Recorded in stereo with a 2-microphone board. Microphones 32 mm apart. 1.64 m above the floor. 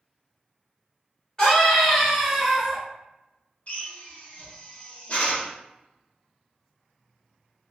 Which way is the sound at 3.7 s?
45° left (ahead or behind).